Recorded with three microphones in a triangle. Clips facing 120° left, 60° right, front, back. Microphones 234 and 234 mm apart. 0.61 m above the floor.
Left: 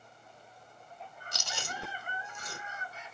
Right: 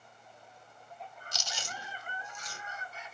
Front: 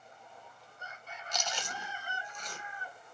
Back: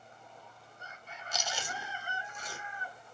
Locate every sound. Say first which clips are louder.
1.3 s chewing: left 4 dB, even; 100° left, 1.3 m